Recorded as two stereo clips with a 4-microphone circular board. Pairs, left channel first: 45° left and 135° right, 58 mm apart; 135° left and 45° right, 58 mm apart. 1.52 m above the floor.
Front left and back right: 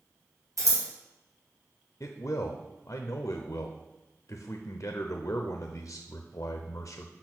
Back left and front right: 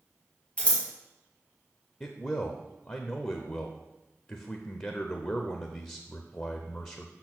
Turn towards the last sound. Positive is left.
turn(degrees=80)